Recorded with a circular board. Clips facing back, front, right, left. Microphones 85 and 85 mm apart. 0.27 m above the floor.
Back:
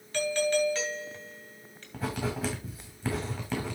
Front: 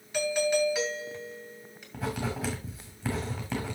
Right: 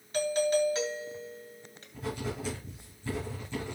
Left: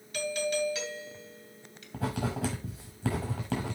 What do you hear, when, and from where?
0.1 s a doorbell: 70° right, 2.5 m
1.9 s writing: 90° left, 5 m